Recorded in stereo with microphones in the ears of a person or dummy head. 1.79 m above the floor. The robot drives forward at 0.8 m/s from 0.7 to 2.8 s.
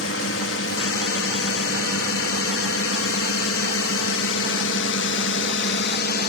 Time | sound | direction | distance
0.0 | a drone | 75° left (ahead or behind) | ?